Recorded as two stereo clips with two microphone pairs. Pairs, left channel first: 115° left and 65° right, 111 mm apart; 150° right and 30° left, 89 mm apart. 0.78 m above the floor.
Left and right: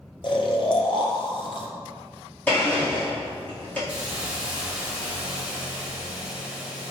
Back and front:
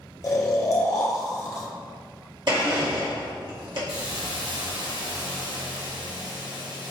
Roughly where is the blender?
Ahead left.